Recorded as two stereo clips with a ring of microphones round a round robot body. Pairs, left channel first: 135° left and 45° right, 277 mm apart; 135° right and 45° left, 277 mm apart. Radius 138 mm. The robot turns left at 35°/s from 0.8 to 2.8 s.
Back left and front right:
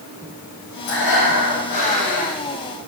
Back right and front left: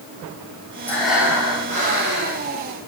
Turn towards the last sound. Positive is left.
turn(degrees=75)